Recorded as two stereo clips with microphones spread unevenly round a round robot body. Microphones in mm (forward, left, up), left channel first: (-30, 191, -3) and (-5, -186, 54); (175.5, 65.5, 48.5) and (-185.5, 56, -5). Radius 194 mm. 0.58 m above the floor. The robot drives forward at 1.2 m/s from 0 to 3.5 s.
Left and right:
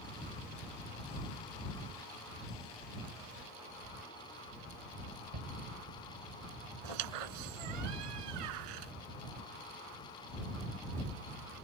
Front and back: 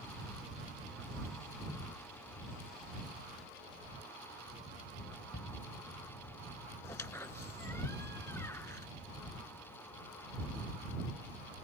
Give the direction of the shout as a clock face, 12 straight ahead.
2 o'clock.